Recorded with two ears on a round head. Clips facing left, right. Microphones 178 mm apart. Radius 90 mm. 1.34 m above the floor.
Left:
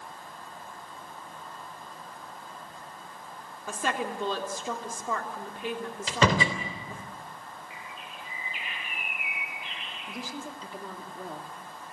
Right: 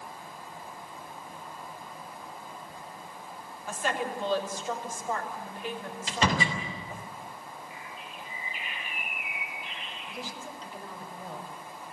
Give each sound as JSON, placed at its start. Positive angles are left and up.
{"t": 3.7, "sound": "a woman speaking", "side_deg": 70, "distance_m": 3.5}
{"t": 6.1, "sound": "a door slam", "side_deg": 80, "distance_m": 3.0}
{"t": 7.7, "sound": "a bird", "side_deg": 70, "distance_m": 9.5}
{"t": 10.1, "sound": "a woman speaking", "side_deg": 80, "distance_m": 3.5}